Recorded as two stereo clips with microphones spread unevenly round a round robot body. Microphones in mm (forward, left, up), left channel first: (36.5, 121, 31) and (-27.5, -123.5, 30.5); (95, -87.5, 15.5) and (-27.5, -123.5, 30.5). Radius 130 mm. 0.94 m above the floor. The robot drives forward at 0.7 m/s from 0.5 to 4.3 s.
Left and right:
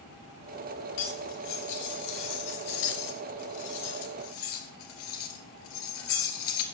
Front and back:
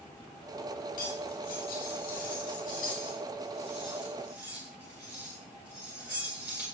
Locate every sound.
1.0 s cutlery clinking: 45° left, 2.5 m; by 6.7 s 115° left, 1.8 m